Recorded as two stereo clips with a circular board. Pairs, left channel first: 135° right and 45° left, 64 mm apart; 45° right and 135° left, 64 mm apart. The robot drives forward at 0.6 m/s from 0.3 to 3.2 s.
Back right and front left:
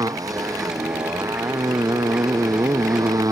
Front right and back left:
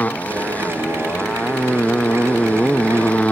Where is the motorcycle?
20° left; by 3.3 s 25° left.